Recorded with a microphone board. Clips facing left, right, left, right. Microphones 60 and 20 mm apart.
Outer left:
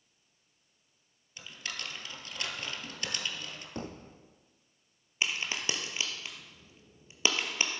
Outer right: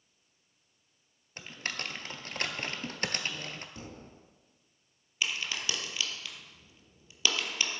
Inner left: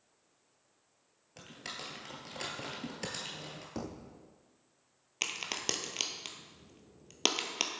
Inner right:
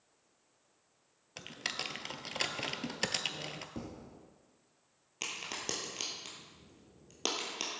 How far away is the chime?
I don't hear a chime.